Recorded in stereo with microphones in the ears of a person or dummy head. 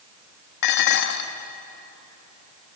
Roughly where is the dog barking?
I don't hear a dog barking.